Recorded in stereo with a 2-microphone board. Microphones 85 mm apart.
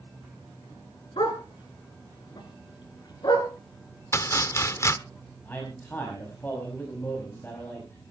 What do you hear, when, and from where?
1.2 s a dog barking: 80° left, 3.5 m; by 3.5 s 55° left (ahead or behind), 4 m
4.1 s chopping: 35° left (ahead or behind), 0.7 m
5.5 s a man speaking: 20° left (ahead or behind), 5 m